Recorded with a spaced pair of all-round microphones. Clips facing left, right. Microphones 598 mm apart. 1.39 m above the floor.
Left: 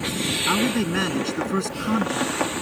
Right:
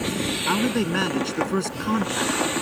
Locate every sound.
0.5 s a man speaking: 5° left (ahead or behind)